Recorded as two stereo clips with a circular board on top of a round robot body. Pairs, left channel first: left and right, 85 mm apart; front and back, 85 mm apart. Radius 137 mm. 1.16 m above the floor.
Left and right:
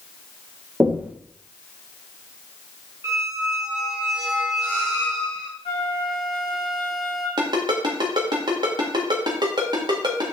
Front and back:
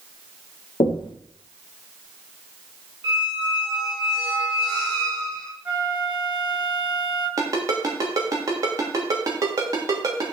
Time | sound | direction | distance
0.8 | knocking | 15° right | 1.4 m
3.0 | a squeak | 145° right | 0.8 m
5.7 | a flute | 105° left | 3.5 m
7.4 | a ringtone | 130° right | 1.6 m